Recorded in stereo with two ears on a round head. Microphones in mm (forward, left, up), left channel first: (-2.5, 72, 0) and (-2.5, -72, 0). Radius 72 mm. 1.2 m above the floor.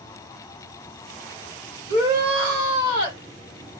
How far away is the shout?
About 1.7 m.